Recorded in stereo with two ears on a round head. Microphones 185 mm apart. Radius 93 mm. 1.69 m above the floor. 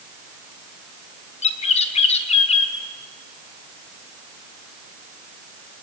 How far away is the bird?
About 1.2 m.